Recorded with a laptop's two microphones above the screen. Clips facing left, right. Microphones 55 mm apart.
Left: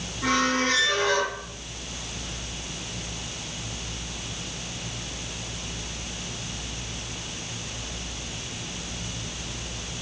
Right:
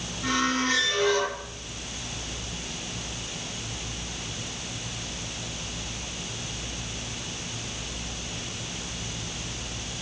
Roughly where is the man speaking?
I don't hear a man speaking.